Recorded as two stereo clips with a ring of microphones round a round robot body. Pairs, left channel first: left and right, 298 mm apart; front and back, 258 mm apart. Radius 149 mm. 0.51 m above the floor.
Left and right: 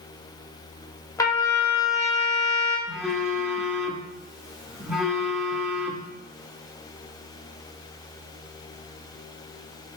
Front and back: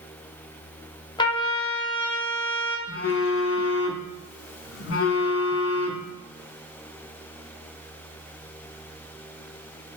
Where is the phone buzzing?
Straight ahead, 0.6 m.